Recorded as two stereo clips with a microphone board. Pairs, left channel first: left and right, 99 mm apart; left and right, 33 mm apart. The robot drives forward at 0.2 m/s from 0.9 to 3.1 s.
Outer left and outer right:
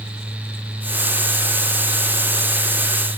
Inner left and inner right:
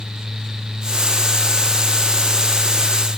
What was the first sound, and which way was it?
Only background noise.